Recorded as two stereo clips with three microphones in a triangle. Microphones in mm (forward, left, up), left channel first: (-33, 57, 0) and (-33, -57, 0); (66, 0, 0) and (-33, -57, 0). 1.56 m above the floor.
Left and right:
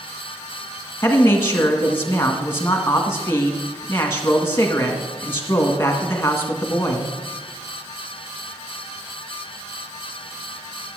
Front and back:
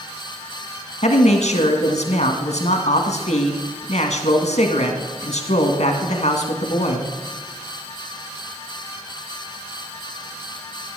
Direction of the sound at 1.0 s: 20° left.